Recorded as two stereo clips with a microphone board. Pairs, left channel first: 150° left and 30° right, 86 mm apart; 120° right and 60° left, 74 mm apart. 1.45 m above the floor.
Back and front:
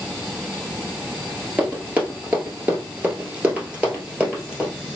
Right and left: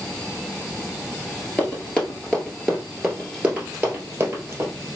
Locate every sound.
1.6 s running footsteps: 80° right, 1.6 m; by 4.7 s 40° left, 1.7 m